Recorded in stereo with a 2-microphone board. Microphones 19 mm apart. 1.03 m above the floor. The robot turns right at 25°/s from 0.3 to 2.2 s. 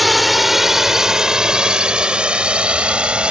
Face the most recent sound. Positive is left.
turn(degrees=-65)  # may be behind; listen again after turning